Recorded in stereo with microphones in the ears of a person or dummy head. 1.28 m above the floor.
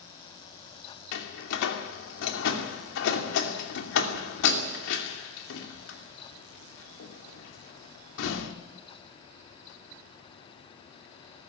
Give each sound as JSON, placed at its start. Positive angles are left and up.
{"t": 1.1, "sound": "a door slam", "side_deg": 70, "distance_m": 2.5}